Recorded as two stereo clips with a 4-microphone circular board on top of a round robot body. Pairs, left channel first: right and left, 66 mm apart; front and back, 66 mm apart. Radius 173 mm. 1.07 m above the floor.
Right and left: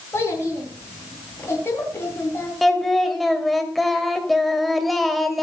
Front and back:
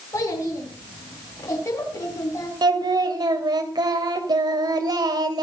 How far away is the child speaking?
About 9.5 m.